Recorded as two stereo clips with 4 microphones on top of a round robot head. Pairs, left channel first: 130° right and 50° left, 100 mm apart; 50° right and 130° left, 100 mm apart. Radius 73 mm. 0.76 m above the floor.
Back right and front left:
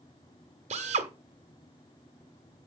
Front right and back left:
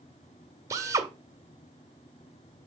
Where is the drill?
65° left, 1.6 m.